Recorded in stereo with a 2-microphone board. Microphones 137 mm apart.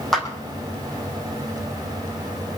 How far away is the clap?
About 5.5 m.